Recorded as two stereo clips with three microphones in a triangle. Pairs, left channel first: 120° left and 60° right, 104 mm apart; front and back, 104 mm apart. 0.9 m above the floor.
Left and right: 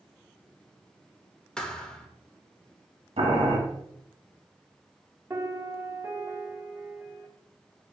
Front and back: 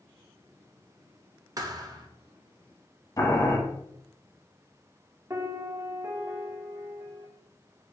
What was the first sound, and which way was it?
A thud, 165° right.